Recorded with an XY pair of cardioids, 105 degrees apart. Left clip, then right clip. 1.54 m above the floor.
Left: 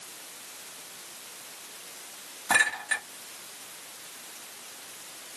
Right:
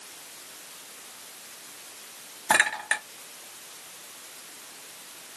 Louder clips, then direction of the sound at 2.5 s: Right 1 dB; 40° right.